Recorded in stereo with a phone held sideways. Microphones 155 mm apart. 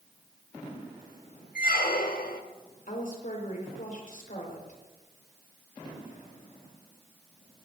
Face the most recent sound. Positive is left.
turn(degrees=65)  # may be behind; listen again after turning